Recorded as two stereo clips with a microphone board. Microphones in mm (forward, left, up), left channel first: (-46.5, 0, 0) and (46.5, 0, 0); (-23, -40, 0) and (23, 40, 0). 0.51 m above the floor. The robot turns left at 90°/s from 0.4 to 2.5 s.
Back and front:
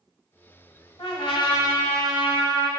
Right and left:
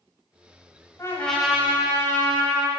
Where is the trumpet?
175° right, 1.2 m; by 2.7 s 50° left, 1.2 m.